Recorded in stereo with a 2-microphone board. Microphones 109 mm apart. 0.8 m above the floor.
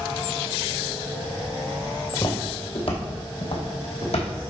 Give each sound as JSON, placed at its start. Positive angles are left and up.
{"t": 2.1, "sound": "footsteps", "side_deg": 40, "distance_m": 1.7}